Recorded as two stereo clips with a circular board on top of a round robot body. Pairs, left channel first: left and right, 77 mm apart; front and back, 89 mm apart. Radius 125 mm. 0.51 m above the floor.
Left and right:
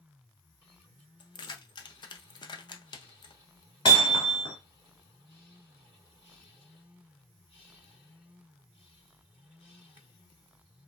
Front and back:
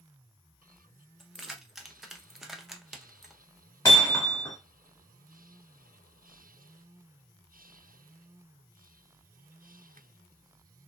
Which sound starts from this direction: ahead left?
Hammering, at 3.9 s.